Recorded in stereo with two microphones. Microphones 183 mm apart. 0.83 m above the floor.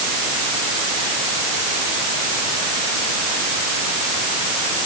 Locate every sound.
Only background noise.